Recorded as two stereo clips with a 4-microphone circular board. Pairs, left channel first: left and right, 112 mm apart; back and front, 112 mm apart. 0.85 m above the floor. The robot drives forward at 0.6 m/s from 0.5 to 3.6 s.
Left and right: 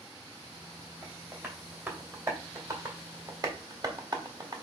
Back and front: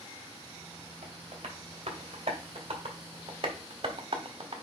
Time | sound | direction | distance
1.0 | tapping | 20° right | 3 m